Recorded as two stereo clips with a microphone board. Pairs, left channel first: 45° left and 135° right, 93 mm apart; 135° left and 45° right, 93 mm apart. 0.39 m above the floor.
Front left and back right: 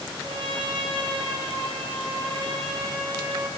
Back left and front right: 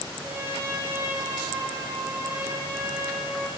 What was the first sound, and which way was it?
A trumpet, 105° right.